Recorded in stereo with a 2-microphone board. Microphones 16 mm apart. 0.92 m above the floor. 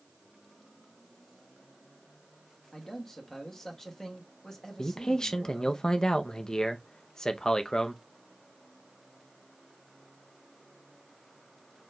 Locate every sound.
2.7 s a man speaking: 35° left (ahead or behind), 1.4 m
4.8 s a man speaking: 45° left (ahead or behind), 0.6 m